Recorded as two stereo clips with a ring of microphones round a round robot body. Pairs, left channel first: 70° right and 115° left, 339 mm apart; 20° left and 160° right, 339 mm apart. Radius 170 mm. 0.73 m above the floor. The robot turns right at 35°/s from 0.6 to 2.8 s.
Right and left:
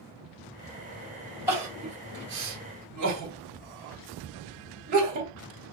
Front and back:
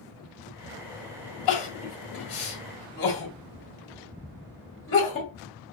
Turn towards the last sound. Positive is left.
turn(degrees=75)